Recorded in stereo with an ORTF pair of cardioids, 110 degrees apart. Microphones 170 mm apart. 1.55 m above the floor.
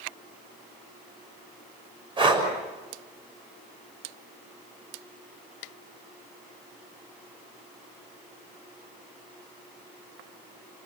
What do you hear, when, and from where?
2.2 s breathing: 30° right, 6.5 m